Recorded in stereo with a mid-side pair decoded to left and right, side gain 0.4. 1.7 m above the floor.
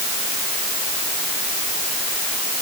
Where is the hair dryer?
No hair dryer in this recording.